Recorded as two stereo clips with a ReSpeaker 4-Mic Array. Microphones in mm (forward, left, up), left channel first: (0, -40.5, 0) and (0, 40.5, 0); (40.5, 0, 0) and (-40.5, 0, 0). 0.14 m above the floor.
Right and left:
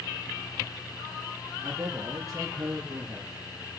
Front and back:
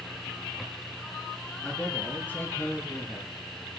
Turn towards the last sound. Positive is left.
turn(degrees=50)